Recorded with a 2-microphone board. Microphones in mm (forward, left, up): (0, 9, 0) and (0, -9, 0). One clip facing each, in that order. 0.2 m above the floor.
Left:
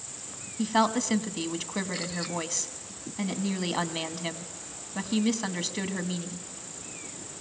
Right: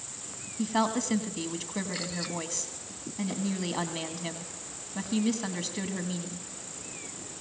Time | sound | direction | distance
0.6 | a woman speaking | 20° left (ahead or behind) | 1.3 m